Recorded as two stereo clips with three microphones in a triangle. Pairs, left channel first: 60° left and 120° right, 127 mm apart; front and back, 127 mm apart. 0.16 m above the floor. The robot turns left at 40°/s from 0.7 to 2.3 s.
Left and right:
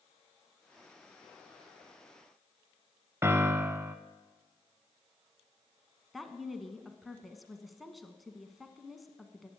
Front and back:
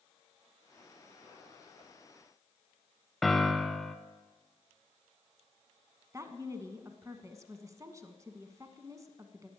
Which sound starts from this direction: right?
A piano, at 3.2 s.